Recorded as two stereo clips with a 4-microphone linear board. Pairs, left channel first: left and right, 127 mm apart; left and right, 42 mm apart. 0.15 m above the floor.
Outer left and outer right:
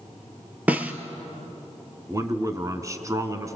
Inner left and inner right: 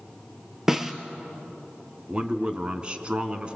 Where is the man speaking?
25° right (ahead or behind), 1.6 m.